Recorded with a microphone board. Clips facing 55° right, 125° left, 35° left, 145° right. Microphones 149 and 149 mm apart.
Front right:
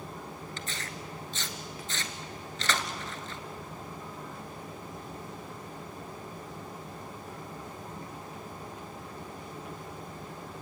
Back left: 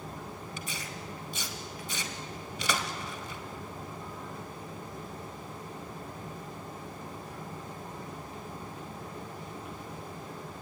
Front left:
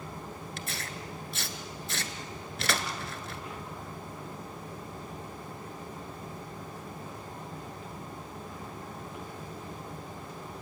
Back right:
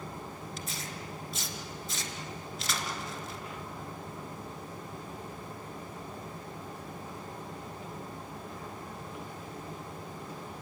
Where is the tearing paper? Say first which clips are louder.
Even, front left 1 dB; 45° left, 1.5 m.